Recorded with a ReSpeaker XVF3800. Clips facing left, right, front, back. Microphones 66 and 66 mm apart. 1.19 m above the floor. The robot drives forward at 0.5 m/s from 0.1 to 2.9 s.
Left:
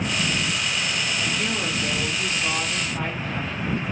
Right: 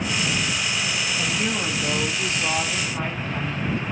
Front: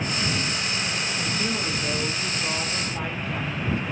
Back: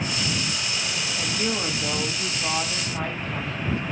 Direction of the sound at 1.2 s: 160° right.